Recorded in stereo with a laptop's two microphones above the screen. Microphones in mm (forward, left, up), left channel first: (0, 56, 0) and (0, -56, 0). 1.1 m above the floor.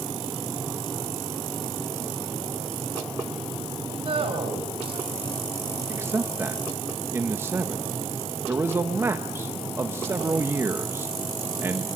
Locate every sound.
4.0 s a man speaking: 55° right (ahead or behind), 6 m
5.9 s a man speaking: 20° right (ahead or behind), 1.2 m